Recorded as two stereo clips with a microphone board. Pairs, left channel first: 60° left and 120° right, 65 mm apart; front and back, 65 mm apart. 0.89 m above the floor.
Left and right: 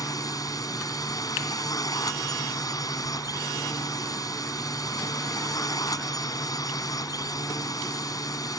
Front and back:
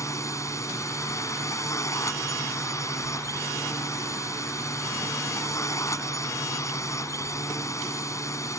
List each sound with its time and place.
0.0 s a drone: 40° left